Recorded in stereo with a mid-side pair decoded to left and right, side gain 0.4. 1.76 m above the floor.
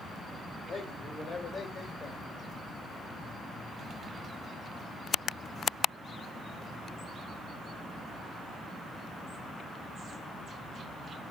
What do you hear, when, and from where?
0.7 s a man speaking: 55° left, 3 m